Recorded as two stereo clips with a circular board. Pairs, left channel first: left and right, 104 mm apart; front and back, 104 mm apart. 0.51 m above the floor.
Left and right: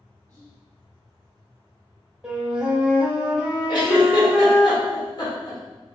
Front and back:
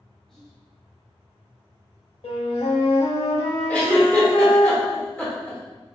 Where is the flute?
10° right, 0.6 m.